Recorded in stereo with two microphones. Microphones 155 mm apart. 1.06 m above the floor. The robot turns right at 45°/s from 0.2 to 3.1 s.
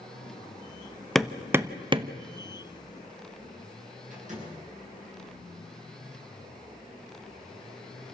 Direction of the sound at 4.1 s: 55° right (ahead or behind).